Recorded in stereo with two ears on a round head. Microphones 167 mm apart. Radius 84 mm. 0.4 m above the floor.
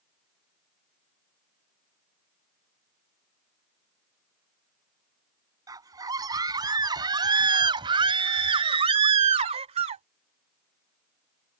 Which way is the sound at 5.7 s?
20° right (ahead or behind).